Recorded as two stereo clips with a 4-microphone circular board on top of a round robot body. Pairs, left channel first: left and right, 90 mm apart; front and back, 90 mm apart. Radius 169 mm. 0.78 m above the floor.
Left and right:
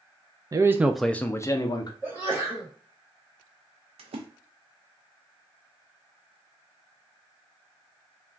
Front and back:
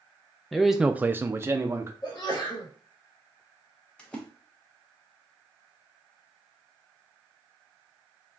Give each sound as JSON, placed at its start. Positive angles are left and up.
{"t": 0.5, "sound": "a man speaking", "azimuth_deg": -85, "distance_m": 0.5}
{"t": 2.0, "sound": "a sneeze", "azimuth_deg": -30, "distance_m": 1.5}
{"t": 4.0, "sound": "a splash", "azimuth_deg": -80, "distance_m": 0.5}